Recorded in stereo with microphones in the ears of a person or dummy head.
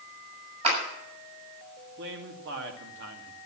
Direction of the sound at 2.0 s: 65° right (ahead or behind).